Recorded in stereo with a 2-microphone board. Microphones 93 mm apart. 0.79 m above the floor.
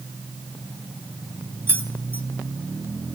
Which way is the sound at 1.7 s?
25° right (ahead or behind).